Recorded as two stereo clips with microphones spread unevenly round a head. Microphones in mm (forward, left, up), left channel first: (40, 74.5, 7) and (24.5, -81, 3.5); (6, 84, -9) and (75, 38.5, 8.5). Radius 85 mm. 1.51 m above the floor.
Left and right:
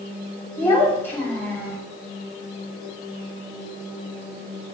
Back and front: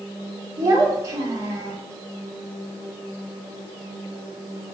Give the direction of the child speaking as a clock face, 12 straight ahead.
12 o'clock.